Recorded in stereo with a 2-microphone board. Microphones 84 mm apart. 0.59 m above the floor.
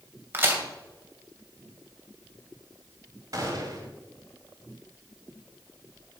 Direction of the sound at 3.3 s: 45° right (ahead or behind).